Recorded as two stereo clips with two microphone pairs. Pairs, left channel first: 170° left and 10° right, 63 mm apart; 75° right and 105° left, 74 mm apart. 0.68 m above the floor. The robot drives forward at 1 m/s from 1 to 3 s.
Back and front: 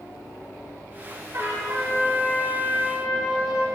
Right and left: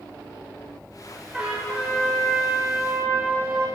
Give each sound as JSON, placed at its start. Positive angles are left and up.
{"t": 1.3, "sound": "a trumpet", "azimuth_deg": 35, "distance_m": 3.0}